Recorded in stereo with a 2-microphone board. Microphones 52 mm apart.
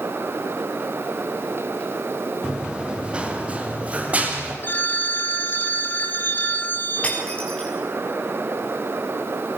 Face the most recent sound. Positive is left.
turn(degrees=20)  # may be behind; listen again after turning